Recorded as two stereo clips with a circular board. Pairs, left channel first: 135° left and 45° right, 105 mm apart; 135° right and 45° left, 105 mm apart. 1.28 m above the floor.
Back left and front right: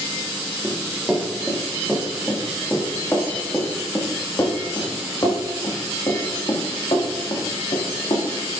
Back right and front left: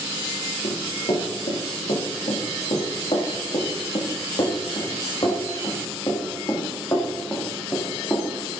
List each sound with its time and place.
0.6 s running footsteps: 135° right, 4.5 m; by 8.3 s 160° left, 4.5 m